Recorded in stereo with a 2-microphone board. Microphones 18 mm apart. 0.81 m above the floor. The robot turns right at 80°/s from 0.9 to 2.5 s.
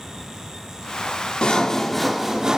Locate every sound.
1.4 s sawing: 120° left, 1.2 m; by 2.6 s 155° right, 1.2 m